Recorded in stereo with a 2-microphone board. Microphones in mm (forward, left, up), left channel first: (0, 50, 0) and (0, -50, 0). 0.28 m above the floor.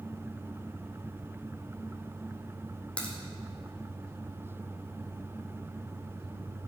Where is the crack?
10° left (ahead or behind), 2.5 m.